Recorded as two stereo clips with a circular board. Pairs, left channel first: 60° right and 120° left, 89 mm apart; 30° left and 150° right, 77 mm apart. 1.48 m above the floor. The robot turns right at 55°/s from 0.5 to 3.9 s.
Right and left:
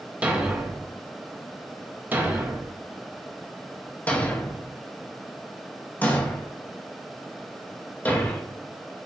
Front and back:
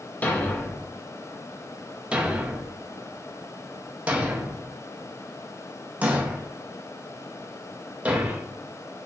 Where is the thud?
70° left, 0.8 m; by 8.4 s 105° right, 0.8 m.